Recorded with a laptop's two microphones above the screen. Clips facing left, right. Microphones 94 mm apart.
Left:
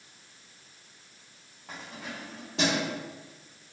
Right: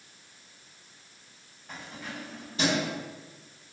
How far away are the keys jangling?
About 0.8 m.